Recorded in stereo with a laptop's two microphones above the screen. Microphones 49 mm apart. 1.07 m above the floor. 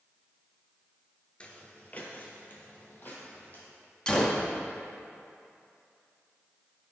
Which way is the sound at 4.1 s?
20° left (ahead or behind).